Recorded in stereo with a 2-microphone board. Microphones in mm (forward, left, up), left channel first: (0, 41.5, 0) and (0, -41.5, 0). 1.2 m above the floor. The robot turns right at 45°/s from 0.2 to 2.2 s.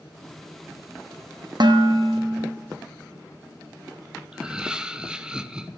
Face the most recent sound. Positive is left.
turn(degrees=-10)  # may be behind; listen again after turning